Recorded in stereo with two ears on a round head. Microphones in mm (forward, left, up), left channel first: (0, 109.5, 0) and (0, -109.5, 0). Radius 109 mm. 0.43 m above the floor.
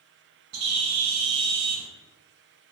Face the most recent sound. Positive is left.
turn(degrees=-75)  # may be behind; listen again after turning